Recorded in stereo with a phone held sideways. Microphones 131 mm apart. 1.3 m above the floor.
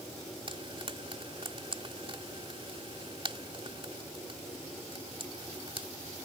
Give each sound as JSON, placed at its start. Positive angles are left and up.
{"t": 0.5, "sound": "frying", "side_deg": -45}